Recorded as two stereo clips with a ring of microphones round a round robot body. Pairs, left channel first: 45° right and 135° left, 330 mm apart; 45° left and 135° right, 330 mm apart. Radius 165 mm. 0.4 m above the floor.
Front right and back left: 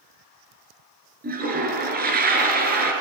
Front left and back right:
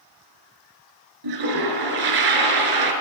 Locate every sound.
1.2 s a toilet flushing: 160° right, 4 m